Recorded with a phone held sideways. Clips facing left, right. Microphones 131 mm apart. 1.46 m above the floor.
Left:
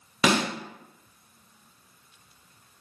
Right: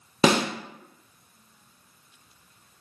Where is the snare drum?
30° right (ahead or behind), 0.5 m.